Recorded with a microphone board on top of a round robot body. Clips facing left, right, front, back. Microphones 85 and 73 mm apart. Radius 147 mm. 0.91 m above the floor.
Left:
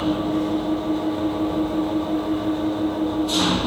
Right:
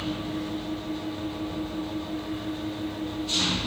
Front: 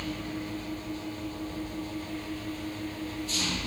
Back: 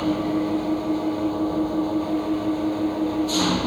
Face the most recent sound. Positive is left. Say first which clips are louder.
# left 10 dB, back 13 dB
turn(degrees=140)